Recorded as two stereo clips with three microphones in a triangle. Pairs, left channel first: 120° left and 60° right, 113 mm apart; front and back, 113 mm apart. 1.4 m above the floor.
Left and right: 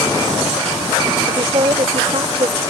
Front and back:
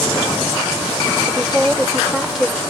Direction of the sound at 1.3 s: 90° right.